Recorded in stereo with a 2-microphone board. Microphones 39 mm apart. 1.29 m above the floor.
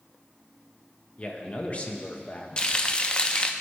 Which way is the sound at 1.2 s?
35° left (ahead or behind).